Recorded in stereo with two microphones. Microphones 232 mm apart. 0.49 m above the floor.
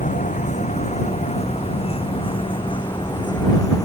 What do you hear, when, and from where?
0.0 s a vehicle: 35° left (ahead or behind); by 3.9 s 15° left (ahead or behind)